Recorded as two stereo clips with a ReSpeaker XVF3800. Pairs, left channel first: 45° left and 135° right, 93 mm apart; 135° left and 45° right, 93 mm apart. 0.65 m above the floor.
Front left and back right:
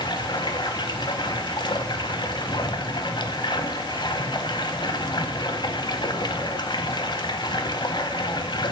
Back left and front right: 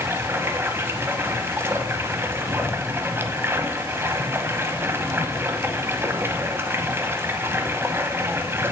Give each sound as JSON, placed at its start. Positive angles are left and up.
{"t": 0.0, "sound": "running water", "azimuth_deg": 15, "distance_m": 0.8}